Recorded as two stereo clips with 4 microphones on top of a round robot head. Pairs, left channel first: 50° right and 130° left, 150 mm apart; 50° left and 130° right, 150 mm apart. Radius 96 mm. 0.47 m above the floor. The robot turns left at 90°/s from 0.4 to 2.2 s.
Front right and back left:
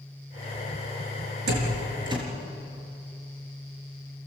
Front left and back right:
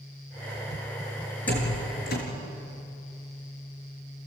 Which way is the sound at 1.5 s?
130° left.